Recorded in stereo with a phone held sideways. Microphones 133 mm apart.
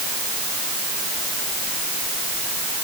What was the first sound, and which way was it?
Only background noise.